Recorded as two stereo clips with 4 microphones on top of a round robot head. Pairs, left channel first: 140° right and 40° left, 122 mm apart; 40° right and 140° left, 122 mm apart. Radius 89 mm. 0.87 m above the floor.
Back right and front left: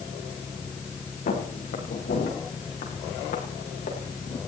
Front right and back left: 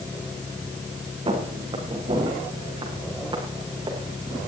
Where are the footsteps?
165° right, 6.5 m; by 4.4 s 160° right, 8 m.